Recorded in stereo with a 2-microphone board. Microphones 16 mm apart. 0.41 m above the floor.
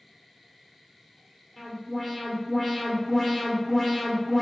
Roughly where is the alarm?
Centre.